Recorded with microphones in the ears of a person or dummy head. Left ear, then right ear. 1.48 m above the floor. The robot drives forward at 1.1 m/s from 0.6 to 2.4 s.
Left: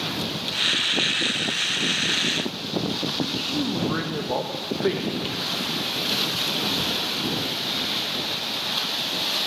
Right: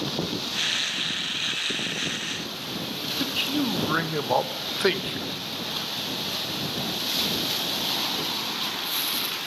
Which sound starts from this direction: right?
A man speaking, at 3.2 s.